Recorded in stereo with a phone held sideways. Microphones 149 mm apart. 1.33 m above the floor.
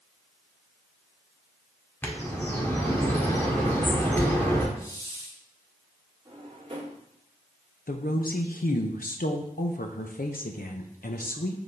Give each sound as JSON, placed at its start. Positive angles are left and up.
{"t": 2.0, "sound": "a bird", "side_deg": 15, "distance_m": 1.6}
{"t": 4.8, "sound": "a hiss", "side_deg": 20, "distance_m": 1.7}
{"t": 6.2, "sound": "a drawer", "side_deg": -35, "distance_m": 2.5}
{"t": 7.9, "sound": "a woman speaking", "side_deg": 75, "distance_m": 0.7}